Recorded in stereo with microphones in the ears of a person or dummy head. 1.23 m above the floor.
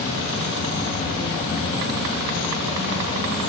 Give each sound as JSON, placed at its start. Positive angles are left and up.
{"t": 0.0, "sound": "an insect", "side_deg": 45, "distance_m": 2.5}